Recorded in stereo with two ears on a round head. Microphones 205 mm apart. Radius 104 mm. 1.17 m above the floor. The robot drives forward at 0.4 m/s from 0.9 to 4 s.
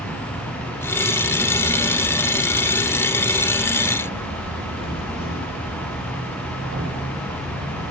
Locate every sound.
0.0 s an insect: 75° right (ahead or behind), 3 m